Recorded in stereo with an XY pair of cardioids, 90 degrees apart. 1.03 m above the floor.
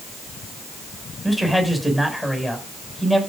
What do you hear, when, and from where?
1.2 s a man speaking: straight ahead, 7 m